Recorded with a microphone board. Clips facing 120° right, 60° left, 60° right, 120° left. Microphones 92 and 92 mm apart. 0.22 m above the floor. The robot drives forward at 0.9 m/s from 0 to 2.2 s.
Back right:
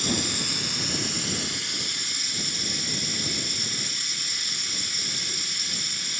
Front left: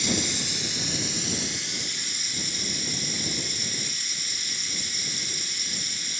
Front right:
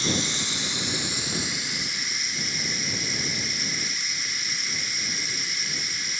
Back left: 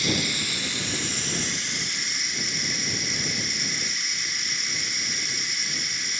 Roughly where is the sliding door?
I don't hear a sliding door.